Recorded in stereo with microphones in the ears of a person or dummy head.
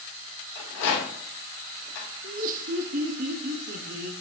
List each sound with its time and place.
0.6 s a rattle: 75° left (ahead or behind), 3 m
2.2 s laughter: 50° right (ahead or behind), 1.0 m